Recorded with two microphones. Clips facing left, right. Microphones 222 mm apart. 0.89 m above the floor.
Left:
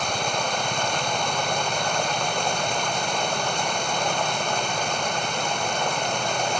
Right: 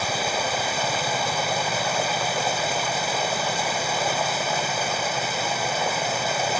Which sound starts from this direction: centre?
Running water, at 0.0 s.